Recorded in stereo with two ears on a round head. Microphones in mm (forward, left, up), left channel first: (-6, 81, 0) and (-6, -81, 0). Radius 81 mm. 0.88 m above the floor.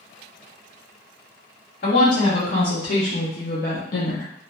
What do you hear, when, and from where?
1.8 s a woman speaking: 60° left (ahead or behind), 1.8 m; by 4.3 s 45° left (ahead or behind), 0.5 m